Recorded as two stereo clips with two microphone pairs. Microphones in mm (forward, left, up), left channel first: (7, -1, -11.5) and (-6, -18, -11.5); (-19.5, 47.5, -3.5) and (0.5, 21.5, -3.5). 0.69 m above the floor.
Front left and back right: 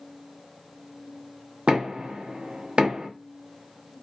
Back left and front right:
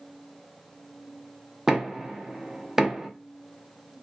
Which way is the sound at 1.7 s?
135° right.